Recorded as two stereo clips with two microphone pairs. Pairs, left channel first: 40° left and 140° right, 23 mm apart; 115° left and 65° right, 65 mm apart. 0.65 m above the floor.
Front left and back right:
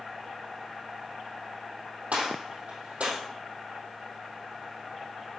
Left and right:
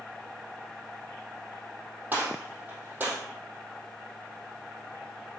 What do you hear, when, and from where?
2.1 s a gunshot: 125° right, 3.5 m